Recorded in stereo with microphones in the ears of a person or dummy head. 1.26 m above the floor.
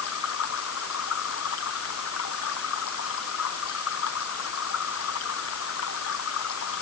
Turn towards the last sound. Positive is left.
turn(degrees=85)